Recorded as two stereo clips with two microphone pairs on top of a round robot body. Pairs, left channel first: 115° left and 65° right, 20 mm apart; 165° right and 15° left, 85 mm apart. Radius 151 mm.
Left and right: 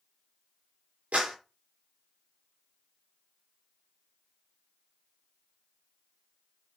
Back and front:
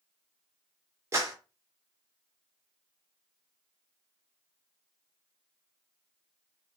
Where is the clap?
40° right, 3.5 m.